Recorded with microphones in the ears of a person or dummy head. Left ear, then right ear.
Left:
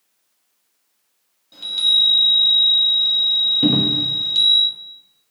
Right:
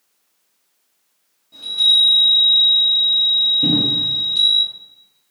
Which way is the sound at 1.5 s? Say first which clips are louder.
Right 2 dB; 30° left (ahead or behind).